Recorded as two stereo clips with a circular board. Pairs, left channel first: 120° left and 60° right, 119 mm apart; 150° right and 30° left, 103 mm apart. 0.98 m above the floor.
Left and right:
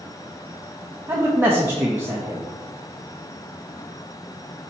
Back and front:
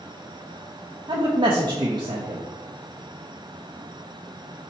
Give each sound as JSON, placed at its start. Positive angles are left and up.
{"t": 1.1, "sound": "a man speaking", "azimuth_deg": 5, "distance_m": 0.6}